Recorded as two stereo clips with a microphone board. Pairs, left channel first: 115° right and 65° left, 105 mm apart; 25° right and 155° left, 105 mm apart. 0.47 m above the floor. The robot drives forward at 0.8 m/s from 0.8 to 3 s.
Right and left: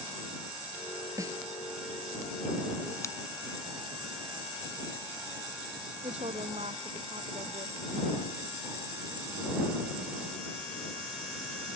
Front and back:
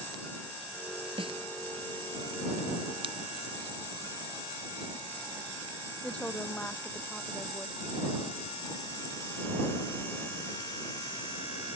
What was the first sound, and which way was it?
A snare drum, 125° left.